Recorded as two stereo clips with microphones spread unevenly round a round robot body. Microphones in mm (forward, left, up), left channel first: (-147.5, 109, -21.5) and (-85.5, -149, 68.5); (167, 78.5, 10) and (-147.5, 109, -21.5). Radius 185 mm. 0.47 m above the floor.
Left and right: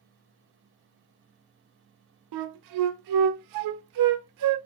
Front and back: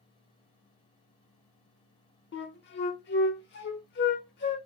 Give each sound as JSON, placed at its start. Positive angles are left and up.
{"t": 2.3, "sound": "a flute", "azimuth_deg": -70, "distance_m": 0.6}